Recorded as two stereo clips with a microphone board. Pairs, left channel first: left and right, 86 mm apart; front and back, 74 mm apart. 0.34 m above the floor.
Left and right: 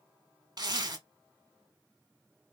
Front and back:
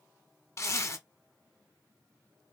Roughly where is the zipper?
Ahead right.